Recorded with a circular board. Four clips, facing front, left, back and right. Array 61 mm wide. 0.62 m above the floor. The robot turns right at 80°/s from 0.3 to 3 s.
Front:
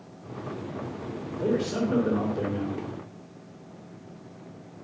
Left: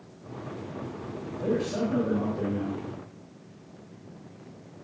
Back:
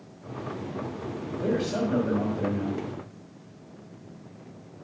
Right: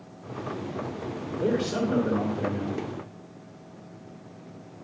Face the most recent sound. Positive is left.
turn(degrees=55)